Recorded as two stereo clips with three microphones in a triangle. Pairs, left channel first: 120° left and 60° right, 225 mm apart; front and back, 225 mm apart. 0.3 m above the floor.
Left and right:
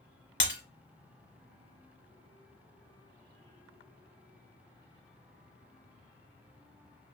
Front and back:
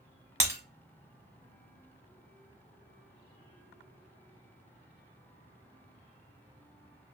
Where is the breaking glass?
100° left, 1.0 m.